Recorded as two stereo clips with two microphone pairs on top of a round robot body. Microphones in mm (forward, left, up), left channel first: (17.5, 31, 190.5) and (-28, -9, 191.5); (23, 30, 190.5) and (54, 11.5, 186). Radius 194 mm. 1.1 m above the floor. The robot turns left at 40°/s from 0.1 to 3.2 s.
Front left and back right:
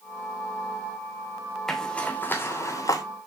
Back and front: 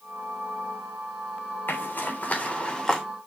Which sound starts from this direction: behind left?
A zipper, at 1.7 s.